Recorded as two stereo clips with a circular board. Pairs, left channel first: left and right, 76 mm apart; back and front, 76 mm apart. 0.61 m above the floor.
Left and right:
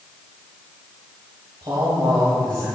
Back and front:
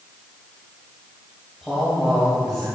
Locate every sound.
1.6 s a man speaking: 100° right, 3 m